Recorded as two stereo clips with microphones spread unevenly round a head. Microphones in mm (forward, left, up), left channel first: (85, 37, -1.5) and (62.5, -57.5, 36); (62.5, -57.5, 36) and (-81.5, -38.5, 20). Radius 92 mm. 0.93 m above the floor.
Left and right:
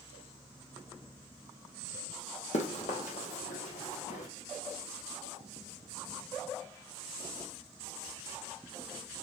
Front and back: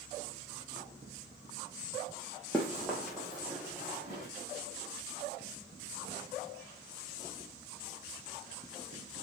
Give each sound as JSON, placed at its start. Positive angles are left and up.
{"t": 2.5, "sound": "running footsteps", "azimuth_deg": 75, "distance_m": 1.9}